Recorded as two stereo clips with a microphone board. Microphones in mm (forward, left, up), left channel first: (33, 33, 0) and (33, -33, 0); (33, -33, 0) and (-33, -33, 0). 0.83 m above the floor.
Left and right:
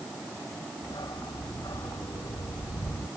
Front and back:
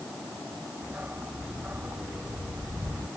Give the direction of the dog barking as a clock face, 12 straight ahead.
8 o'clock.